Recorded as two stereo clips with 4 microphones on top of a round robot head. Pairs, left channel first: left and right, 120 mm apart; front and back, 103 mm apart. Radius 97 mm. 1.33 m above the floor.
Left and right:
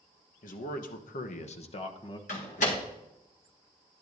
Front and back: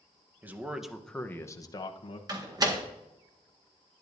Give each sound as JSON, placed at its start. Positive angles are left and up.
{"t": 0.4, "sound": "a man speaking", "azimuth_deg": 110, "distance_m": 1.1}
{"t": 2.3, "sound": "a door slam", "azimuth_deg": 130, "distance_m": 1.6}